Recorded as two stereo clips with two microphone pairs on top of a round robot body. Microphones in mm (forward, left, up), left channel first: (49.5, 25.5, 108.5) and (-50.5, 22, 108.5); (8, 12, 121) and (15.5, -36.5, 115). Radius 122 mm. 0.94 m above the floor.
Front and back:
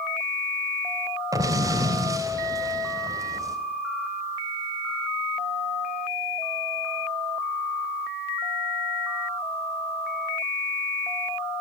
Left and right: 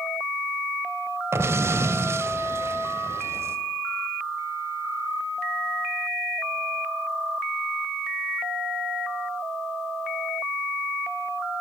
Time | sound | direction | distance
1.3 | an explosion | 120° right | 3.5 m